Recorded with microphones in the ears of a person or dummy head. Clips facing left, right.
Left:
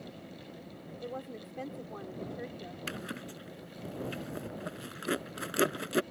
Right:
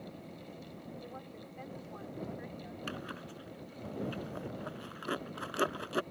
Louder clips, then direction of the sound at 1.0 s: Left 6 dB; 55° left (ahead or behind).